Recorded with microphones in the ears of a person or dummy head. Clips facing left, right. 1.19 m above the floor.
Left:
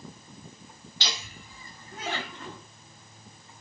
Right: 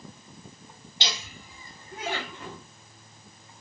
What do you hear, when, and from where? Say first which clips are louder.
1.0 s laughter: right 2 dB; 20° right (ahead or behind), 1.7 m; by 2.6 s centre (ahead or behind), 2.5 m